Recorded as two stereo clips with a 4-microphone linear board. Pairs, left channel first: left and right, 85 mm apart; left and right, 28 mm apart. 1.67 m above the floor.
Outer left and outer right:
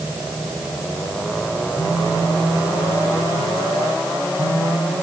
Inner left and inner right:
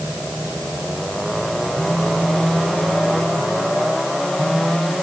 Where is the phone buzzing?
60° left (ahead or behind), 1.8 m.